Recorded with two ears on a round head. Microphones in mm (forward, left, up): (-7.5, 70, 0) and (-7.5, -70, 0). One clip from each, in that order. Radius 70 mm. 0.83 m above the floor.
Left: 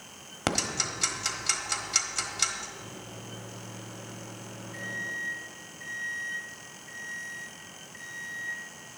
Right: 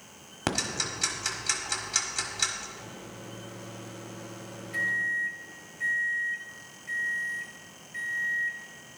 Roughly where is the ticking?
Centre.